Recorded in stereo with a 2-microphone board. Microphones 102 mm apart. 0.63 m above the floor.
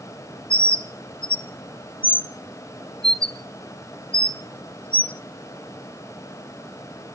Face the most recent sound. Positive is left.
turn(degrees=55)  # may be behind; listen again after turning